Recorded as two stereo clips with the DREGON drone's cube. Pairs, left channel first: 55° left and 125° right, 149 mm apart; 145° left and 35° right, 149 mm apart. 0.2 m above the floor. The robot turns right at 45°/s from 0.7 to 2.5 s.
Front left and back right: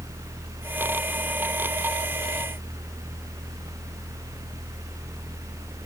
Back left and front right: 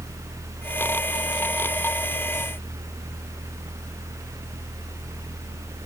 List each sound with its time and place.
Only background noise.